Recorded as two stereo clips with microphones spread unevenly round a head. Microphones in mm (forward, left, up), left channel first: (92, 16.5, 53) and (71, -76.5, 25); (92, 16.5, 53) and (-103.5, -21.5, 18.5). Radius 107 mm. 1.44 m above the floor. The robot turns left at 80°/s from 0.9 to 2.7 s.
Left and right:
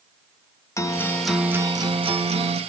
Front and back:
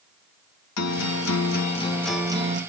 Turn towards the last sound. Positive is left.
turn(degrees=-125)